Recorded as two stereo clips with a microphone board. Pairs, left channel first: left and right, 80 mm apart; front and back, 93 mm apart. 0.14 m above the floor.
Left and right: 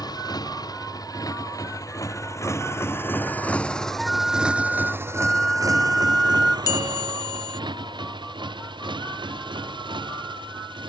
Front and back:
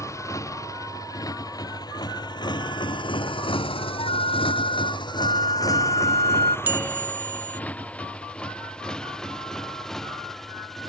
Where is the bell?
115° left.